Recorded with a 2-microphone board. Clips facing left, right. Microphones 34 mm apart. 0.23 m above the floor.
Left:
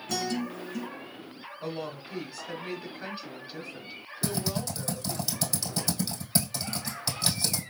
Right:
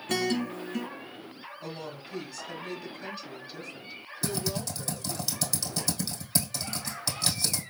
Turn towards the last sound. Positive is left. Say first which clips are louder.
# left 1 dB
turn(degrees=5)  # may be behind; listen again after turning